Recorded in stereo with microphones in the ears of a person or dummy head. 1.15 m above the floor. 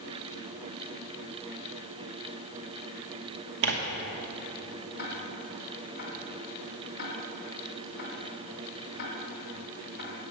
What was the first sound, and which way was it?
Tearing paper, 60° right (ahead or behind).